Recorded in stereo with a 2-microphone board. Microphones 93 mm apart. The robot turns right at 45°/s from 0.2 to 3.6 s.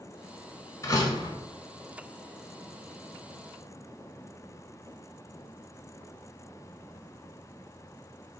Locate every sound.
0.8 s a door slam: 30° left (ahead or behind), 1.5 m; by 1.4 s 50° left (ahead or behind), 1.5 m